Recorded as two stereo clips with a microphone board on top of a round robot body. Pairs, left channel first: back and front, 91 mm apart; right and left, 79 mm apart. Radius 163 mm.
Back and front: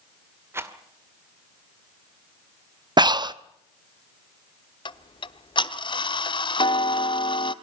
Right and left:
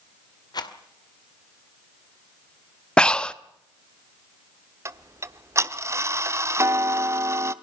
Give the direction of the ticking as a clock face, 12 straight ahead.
7 o'clock.